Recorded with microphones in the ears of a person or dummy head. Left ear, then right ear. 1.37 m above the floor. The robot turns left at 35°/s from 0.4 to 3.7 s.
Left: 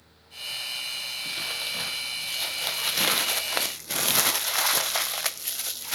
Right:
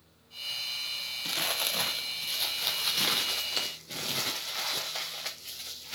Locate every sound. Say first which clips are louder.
1.2 s crumpling: right 3 dB; 145° right, 0.5 m; by 6.0 s 130° left, 0.5 m